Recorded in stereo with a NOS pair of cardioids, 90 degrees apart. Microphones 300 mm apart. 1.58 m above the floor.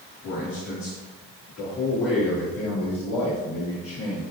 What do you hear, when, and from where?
0.2 s a man speaking: 70° left, 2.5 m; by 4.2 s 65° left, 5 m